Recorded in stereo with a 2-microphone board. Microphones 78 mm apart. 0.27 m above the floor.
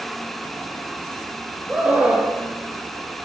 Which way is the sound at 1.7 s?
20° right (ahead or behind).